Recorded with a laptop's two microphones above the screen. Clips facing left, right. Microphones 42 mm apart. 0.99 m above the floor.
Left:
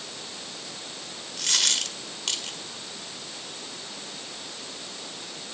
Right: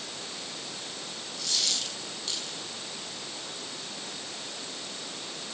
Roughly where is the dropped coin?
Left.